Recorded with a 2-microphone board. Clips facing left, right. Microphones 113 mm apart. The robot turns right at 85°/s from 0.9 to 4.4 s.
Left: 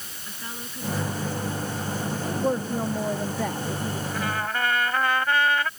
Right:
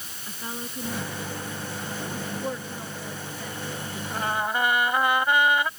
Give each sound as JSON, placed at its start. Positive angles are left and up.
{"t": 0.3, "sound": "a woman speaking", "azimuth_deg": -20}
{"t": 2.4, "sound": "a woman speaking", "azimuth_deg": 20}
{"t": 4.1, "sound": "a trumpet", "side_deg": -40}